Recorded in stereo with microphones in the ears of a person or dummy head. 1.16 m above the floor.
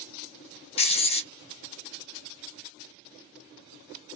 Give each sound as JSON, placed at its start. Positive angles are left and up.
{"t": 0.8, "sound": "writing", "side_deg": 25, "distance_m": 0.6}